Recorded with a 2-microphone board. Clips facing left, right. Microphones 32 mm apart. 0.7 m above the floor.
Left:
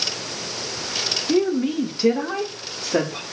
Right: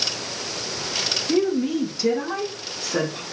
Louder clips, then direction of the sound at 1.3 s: Left 1 dB; 10° left (ahead or behind).